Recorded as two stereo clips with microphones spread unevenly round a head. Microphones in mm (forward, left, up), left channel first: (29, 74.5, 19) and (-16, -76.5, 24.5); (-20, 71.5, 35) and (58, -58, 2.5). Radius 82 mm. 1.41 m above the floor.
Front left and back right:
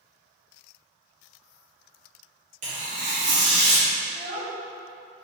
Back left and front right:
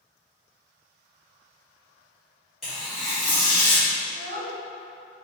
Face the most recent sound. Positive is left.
turn(degrees=-60)